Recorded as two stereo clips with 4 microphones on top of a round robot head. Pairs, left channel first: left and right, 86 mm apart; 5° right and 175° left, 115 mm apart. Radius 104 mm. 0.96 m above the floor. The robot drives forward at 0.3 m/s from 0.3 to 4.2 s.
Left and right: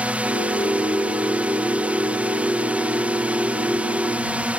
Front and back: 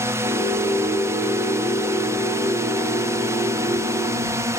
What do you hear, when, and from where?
0.0 s a drone: 145° right; by 4.6 s 150° right